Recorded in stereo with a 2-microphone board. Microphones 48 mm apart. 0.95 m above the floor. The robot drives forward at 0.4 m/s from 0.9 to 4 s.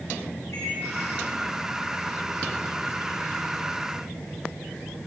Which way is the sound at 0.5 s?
80° left.